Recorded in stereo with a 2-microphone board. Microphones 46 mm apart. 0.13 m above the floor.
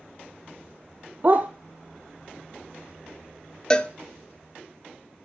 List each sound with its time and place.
1.2 s a dog barking: 40° right (ahead or behind), 0.7 m
3.7 s a cowbell: 20° left (ahead or behind), 0.5 m